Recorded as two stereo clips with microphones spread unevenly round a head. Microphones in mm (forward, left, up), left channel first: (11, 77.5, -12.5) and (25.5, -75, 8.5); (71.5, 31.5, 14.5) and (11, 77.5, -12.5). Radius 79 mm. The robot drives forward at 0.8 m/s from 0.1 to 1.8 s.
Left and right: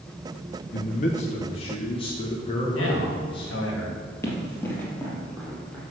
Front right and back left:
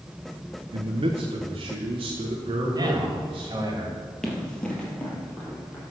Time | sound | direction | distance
0.7 | a man speaking | 130° left | 0.8 m
2.7 | a man speaking | 105° left | 2.5 m
4.2 | running footsteps | 20° left | 2.5 m